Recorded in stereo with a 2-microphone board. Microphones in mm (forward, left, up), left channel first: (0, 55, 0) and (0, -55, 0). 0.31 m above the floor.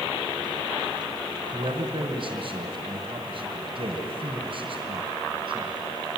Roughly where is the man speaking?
Right.